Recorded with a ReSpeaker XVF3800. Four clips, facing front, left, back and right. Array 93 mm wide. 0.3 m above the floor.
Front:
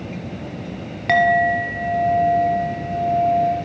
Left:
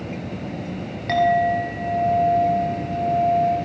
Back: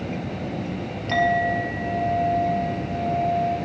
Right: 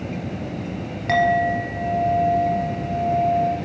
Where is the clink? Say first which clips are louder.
Even, front 5 dB; 5° right, 3.5 m.